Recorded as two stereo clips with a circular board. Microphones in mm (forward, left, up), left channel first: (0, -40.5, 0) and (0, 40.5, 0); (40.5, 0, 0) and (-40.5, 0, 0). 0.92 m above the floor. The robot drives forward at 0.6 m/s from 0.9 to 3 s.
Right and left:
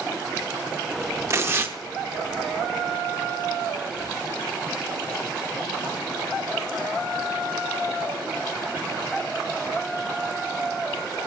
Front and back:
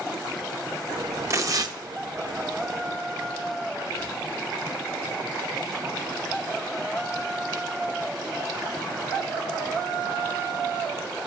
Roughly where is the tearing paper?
Behind left.